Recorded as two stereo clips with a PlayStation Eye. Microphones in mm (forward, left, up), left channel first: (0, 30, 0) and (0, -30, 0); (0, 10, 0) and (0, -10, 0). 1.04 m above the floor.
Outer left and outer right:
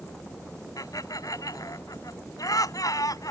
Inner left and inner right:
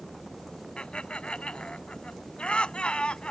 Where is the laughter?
65° left (ahead or behind).